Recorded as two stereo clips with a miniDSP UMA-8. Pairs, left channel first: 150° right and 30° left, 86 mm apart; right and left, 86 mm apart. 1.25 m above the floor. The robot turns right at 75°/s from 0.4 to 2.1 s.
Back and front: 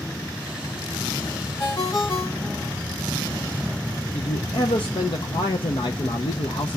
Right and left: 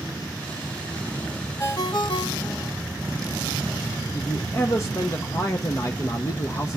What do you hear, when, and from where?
1.6 s a ringtone: 135° right, 1.3 m; by 2.8 s 95° right, 1.3 m
4.1 s a man speaking: 140° right, 0.7 m